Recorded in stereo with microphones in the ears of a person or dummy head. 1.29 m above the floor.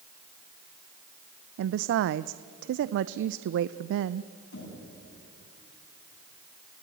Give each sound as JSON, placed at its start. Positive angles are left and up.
{"t": 1.6, "sound": "a woman speaking", "side_deg": -70, "distance_m": 0.5}
{"t": 4.5, "sound": "knocking", "side_deg": 90, "distance_m": 10.0}